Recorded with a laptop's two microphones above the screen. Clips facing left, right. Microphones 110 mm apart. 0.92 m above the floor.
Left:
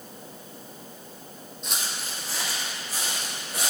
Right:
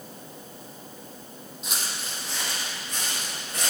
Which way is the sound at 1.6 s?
5° right (ahead or behind).